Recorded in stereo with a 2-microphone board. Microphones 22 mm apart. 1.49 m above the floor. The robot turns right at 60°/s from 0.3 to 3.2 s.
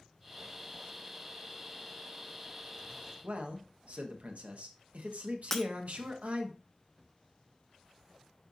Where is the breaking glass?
20° left (ahead or behind), 0.8 m.